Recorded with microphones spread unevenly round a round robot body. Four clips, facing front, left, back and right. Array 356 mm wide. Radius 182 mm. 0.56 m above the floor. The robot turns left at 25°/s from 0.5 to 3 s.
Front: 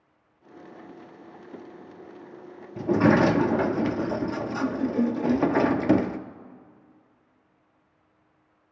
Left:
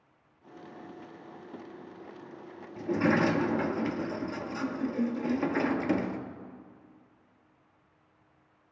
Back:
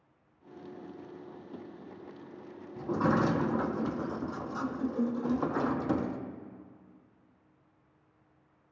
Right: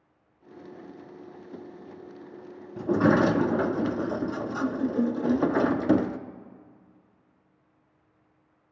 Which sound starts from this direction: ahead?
A sliding door, at 2.8 s.